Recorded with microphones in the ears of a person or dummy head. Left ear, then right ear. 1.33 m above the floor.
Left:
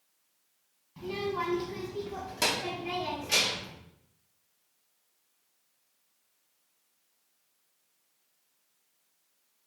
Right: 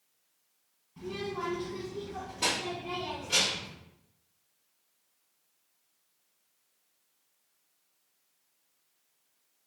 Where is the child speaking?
35° left (ahead or behind), 0.9 m; by 3.7 s 65° left (ahead or behind), 2.0 m.